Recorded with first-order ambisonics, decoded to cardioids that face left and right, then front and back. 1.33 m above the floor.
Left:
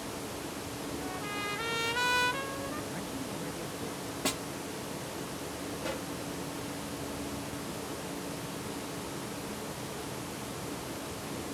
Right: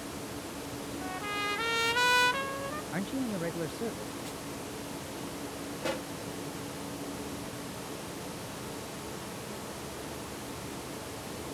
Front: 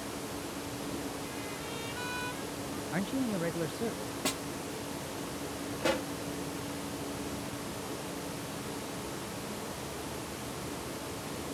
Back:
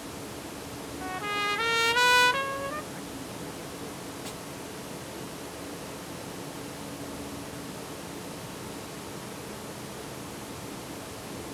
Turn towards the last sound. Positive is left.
turn(degrees=-15)